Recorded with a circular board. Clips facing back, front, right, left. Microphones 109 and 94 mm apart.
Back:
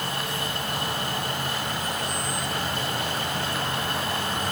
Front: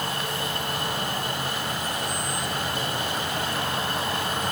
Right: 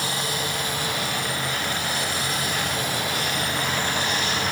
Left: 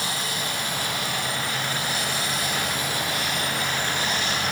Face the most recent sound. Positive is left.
No sound to turn to.